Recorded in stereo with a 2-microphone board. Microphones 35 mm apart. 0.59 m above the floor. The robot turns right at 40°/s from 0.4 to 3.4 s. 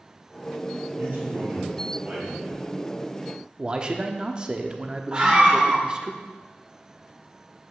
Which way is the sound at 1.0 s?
85° right.